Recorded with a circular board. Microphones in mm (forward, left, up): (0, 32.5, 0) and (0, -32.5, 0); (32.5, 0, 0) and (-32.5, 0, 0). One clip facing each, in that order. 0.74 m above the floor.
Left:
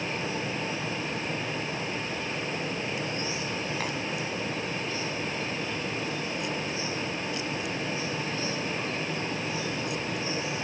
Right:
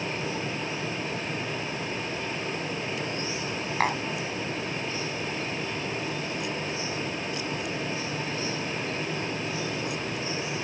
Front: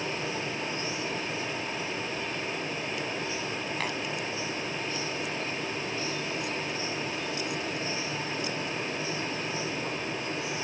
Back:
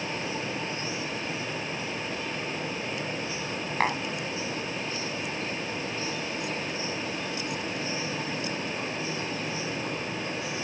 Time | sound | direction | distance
3.8 | tapping | 130° right | ?